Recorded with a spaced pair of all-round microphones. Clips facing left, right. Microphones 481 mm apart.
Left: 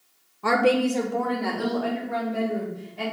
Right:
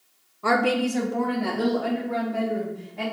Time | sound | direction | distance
0.4 | a woman speaking | 5° left (ahead or behind) | 0.8 m